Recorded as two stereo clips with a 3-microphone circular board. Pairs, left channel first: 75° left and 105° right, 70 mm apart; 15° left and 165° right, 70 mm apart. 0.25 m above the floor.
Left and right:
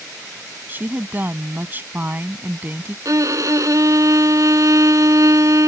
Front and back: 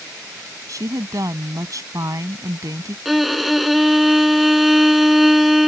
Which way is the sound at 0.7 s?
160° right.